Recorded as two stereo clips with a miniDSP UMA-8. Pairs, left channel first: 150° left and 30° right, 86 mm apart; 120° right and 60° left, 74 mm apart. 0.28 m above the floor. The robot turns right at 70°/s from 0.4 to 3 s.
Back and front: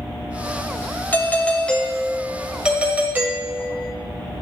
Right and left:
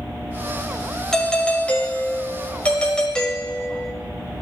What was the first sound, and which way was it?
A doorbell, 165° left.